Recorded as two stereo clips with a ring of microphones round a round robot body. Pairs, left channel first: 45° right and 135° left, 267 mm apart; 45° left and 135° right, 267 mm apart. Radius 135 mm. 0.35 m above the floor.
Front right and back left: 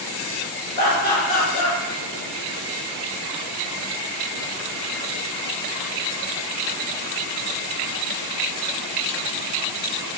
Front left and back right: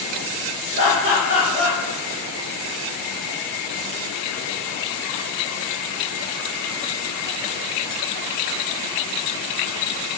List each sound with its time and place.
0.8 s laughter: 80° right, 1.2 m